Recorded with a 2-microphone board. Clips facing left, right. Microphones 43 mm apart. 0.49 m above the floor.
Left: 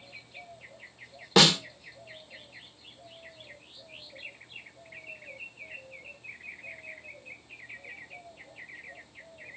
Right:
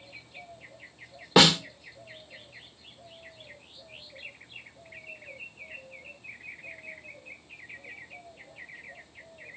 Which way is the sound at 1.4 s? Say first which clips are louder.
Right 2 dB; 15° right (ahead or behind).